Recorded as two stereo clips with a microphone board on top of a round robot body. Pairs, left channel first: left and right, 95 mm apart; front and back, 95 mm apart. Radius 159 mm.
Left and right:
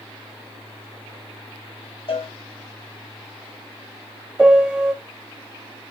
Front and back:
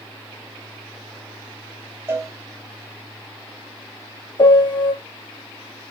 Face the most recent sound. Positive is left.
turn(degrees=-10)